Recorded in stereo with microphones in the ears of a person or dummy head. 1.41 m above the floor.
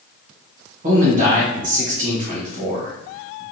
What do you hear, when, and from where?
0.8 s a man speaking: 50° right (ahead or behind), 1.3 m